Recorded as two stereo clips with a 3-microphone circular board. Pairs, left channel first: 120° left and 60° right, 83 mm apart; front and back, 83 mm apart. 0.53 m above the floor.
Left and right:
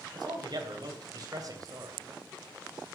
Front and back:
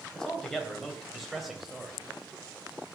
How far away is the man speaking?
About 3.5 m.